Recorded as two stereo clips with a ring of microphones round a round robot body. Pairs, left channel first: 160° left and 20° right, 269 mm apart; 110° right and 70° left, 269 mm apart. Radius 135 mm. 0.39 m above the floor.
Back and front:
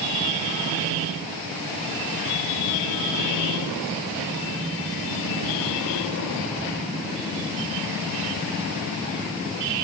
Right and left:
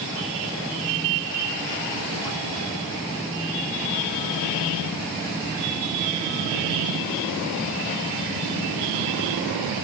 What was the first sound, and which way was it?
Only background noise.